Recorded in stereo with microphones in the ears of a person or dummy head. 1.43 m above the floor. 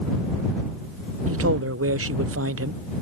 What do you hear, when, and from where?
1.3 s a man speaking: 70° right (ahead or behind)